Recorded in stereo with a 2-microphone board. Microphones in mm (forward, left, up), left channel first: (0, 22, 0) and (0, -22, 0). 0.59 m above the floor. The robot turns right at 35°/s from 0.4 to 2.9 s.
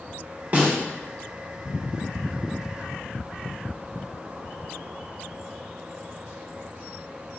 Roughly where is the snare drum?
Right.